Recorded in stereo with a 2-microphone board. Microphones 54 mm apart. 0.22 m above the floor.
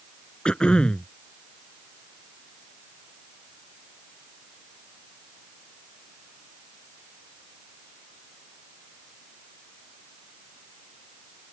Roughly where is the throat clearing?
Centre.